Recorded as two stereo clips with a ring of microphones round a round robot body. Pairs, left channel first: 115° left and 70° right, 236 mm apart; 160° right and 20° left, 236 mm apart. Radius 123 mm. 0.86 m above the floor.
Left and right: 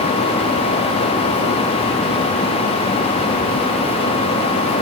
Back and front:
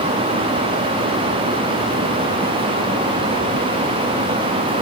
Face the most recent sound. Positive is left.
No sound to turn to.